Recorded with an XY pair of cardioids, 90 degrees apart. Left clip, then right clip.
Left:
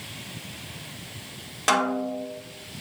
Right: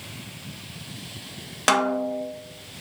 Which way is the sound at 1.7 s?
45° right.